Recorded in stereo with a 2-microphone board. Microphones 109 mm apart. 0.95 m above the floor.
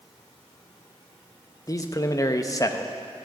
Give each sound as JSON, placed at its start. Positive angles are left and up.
{"t": 1.7, "sound": "a man speaking", "side_deg": 30, "distance_m": 0.7}